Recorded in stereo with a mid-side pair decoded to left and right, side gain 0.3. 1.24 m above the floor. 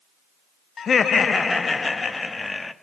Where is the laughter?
70° left, 0.6 m; by 2.7 s 45° left, 2.0 m.